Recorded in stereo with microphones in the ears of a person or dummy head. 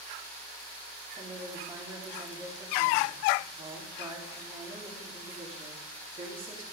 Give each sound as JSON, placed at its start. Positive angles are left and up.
{"t": 1.2, "sound": "a woman speaking", "side_deg": -25, "distance_m": 3.5}